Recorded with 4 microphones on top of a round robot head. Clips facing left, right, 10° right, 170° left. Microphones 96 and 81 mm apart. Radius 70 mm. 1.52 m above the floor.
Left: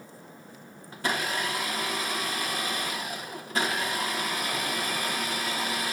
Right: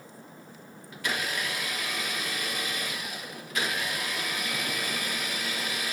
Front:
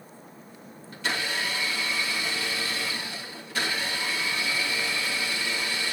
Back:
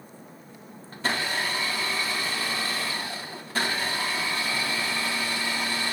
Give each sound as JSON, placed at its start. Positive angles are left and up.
{"t": 0.9, "sound": "a blender", "azimuth_deg": 135, "distance_m": 1.9}